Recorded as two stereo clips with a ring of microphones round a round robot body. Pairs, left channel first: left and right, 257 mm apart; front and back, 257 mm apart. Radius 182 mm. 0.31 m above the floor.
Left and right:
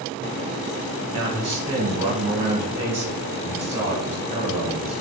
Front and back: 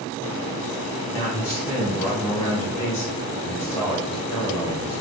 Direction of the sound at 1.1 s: 65° right.